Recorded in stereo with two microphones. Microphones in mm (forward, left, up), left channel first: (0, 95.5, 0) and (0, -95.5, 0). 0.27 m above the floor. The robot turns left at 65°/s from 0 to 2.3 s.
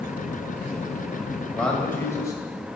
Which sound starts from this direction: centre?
A man speaking, at 1.6 s.